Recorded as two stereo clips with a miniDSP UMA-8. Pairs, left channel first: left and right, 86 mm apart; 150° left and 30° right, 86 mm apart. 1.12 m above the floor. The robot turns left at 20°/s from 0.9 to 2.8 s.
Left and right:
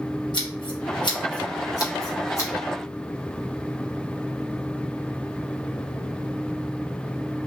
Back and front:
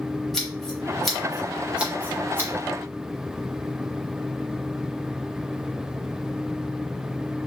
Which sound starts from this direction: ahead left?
Scissors, at 0.3 s.